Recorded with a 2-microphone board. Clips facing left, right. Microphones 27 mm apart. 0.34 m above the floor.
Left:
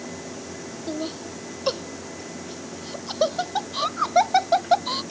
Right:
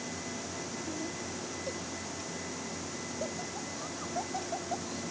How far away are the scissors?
I don't hear scissors.